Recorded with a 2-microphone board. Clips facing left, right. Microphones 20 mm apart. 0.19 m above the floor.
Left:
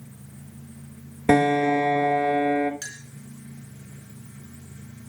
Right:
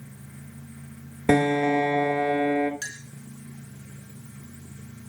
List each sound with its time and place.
1.3 s a piano: centre (ahead or behind), 0.8 m
2.8 s a clink: 35° right (ahead or behind), 1.8 m